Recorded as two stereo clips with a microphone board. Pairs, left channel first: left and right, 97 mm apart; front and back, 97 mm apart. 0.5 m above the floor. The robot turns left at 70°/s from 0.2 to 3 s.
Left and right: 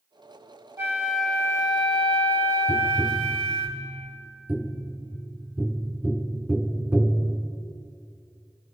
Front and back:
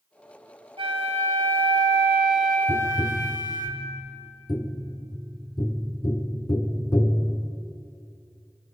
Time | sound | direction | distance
0.8 | a flute | 155° right | 2.5 m
2.7 | tapping | straight ahead | 1.0 m